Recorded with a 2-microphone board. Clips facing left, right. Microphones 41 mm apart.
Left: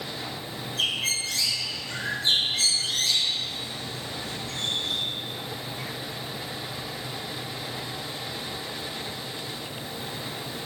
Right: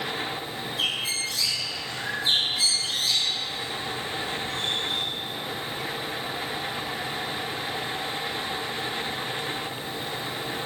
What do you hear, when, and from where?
0.8 s a bird: 75° left (ahead or behind), 2.5 m